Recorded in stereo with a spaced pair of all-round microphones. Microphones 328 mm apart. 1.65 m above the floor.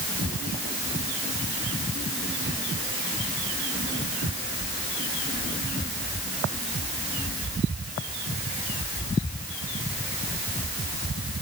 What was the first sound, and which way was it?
Only background noise.